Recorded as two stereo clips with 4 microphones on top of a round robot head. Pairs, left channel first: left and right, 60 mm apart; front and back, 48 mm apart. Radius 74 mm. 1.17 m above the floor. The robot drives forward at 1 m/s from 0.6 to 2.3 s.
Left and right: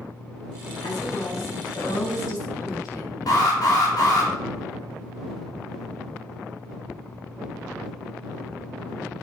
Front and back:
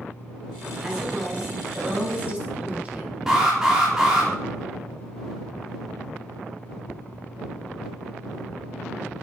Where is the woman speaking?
105° left, 6 m; by 3.1 s 115° left, 6.5 m.